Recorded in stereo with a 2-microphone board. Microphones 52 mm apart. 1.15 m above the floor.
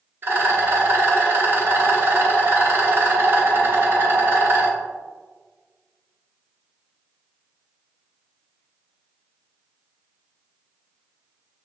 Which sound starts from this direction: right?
A rattle, at 0.2 s.